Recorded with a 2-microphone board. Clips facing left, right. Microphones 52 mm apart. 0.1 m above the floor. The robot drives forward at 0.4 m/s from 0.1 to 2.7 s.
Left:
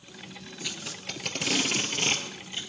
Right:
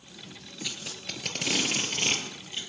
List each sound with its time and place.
0.6 s tape being pulled: 5° left (ahead or behind), 1.7 m